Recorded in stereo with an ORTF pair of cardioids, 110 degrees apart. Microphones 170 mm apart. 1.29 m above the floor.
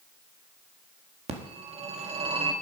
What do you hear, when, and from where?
1.3 s a phone ringing: 40° right, 1.7 m